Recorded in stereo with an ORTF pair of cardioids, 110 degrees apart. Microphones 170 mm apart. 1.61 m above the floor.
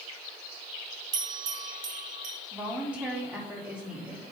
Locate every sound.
1.1 s a bell: 55° right, 1.1 m
2.5 s a woman speaking: 5° right, 2.5 m